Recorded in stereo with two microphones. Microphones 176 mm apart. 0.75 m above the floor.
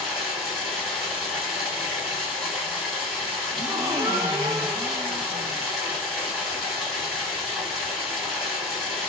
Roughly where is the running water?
Centre.